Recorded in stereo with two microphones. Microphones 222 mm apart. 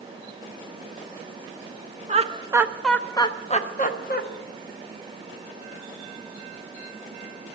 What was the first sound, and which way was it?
Laughter, 30° right (ahead or behind).